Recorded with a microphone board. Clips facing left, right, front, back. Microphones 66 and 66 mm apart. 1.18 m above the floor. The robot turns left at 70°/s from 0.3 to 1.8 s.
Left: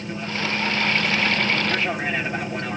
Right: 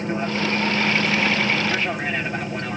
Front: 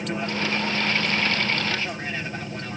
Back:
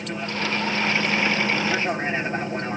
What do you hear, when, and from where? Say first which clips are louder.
0.0 s an aircraft: right 4 dB, front 1 dB; 80° right; by 2.8 s 175° left